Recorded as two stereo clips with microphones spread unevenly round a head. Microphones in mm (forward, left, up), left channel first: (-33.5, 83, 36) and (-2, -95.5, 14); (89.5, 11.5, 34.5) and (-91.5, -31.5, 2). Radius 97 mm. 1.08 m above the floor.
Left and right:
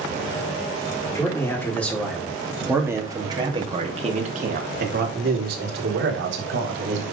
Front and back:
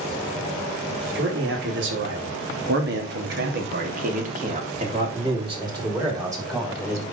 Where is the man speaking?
175° left, 3.5 m; by 7.0 s 90° right, 4.5 m.